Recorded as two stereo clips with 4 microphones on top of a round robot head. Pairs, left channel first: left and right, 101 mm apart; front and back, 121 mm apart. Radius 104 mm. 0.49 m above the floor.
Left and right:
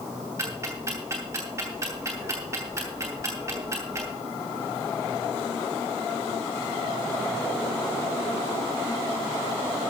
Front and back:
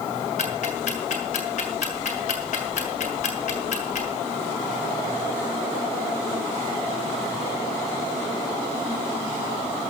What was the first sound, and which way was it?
Ticking, 25° right.